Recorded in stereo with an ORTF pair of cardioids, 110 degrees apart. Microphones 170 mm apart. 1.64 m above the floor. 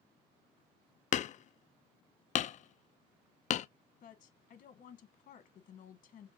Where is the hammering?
45° left, 0.5 m.